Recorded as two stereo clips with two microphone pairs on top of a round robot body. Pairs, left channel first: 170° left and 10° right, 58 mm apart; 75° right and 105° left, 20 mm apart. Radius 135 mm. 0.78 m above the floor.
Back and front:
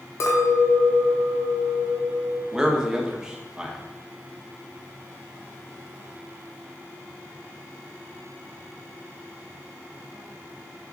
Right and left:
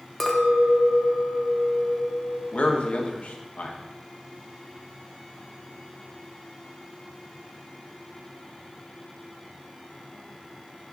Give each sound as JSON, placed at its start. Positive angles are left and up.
{"t": 0.2, "sound": "a clink", "azimuth_deg": -155, "distance_m": 1.1}
{"t": 2.5, "sound": "a man speaking", "azimuth_deg": -90, "distance_m": 1.3}